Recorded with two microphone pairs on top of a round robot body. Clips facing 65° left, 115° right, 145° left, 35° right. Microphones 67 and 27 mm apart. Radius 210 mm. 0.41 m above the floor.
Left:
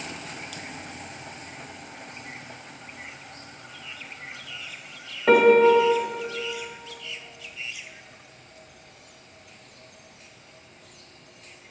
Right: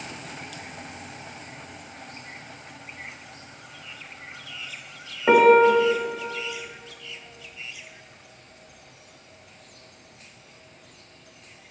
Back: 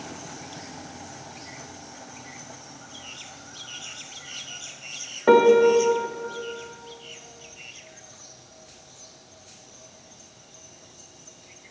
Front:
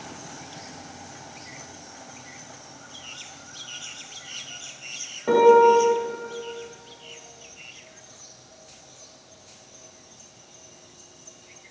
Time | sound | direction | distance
5.3 | a piano | 170° left | 1.2 m